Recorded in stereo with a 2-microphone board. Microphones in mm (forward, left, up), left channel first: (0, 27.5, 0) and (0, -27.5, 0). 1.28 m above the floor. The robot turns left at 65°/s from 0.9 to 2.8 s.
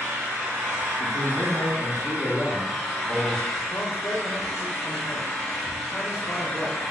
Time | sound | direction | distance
0.0 | an engine running | 50° right | 1.7 m
1.0 | a man speaking | 145° left | 0.6 m
3.7 | a man speaking | 55° left (ahead or behind) | 1.7 m